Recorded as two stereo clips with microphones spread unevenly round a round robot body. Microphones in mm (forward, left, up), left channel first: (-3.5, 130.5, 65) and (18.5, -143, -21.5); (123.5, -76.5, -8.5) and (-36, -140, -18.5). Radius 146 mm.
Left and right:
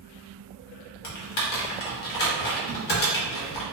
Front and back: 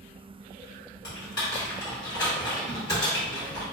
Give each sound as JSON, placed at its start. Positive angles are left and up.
{"t": 1.0, "sound": "typing on a keyboard", "azimuth_deg": 70, "distance_m": 0.8}